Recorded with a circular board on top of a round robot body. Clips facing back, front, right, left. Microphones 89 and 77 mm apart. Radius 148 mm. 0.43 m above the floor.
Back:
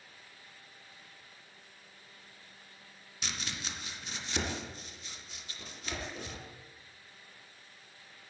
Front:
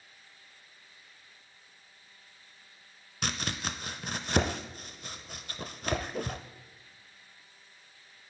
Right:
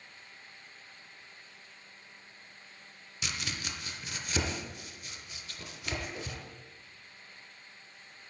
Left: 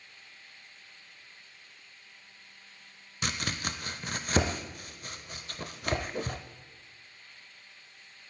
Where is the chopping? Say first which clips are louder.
Front 6 dB, left 5 dB; 40° left, 0.6 m.